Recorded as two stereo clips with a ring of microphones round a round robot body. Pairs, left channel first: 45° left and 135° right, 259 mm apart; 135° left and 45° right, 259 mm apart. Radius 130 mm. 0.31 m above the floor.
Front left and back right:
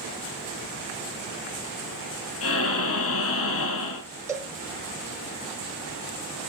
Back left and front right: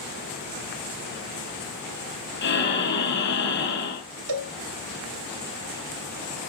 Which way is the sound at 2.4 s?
85° left.